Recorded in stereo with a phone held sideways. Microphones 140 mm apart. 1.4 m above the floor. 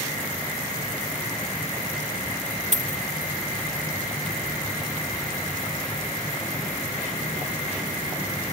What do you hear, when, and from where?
2.7 s a dropped coin: 50° right (ahead or behind)